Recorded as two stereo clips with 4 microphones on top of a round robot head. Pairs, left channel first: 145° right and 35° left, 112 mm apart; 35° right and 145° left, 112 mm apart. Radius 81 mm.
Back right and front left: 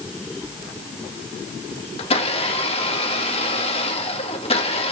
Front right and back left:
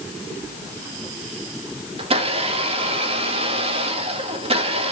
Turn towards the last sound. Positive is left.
turn(degrees=180)